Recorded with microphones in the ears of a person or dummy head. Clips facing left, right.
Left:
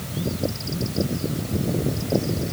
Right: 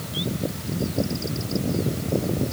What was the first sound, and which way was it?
Only background noise.